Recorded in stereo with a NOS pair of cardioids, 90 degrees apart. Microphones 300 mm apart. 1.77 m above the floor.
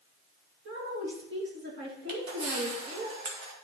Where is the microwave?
I don't hear a microwave.